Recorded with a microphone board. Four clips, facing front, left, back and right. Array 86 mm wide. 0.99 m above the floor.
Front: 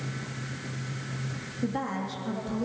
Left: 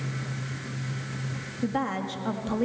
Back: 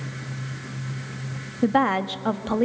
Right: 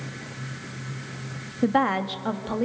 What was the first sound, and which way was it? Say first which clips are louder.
A woman speaking: right 7 dB, back 11 dB; 145° right.